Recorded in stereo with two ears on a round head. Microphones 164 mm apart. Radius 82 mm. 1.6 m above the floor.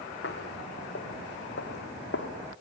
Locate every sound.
0.2 s footsteps: 60° left (ahead or behind), 3.5 m; by 2.3 s 70° left (ahead or behind), 4.5 m